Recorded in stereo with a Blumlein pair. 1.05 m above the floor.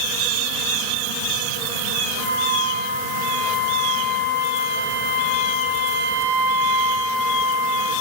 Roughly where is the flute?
Right.